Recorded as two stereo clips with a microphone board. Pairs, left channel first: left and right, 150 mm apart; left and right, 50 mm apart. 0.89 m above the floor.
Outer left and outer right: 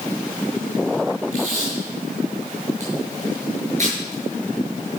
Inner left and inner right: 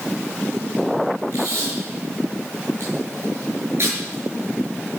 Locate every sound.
1.3 s tape being pulled: 50° right (ahead or behind), 7.5 m